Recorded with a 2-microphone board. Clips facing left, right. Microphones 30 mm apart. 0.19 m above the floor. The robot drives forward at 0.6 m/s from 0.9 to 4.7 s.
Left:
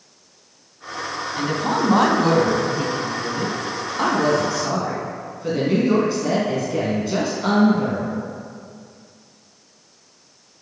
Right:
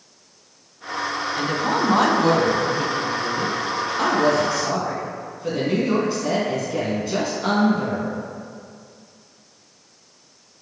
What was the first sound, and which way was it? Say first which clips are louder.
A woman speaking: left 1 dB; 5° left (ahead or behind).